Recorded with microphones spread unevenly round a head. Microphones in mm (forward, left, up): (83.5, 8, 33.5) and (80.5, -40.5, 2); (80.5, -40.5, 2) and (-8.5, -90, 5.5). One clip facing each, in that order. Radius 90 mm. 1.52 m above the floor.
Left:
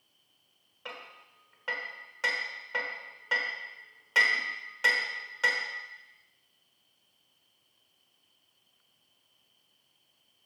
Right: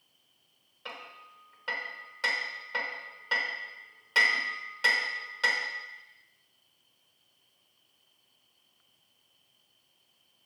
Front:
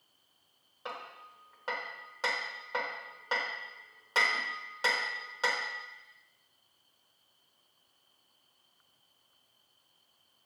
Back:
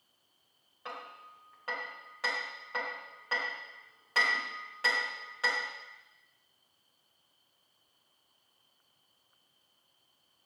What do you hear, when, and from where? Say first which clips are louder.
0.8 s hammering: right 1 dB, front 1 dB; 95° left, 1.0 m